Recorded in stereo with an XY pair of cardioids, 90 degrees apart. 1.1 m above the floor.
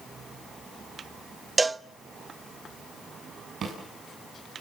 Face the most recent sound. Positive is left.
turn(degrees=-60)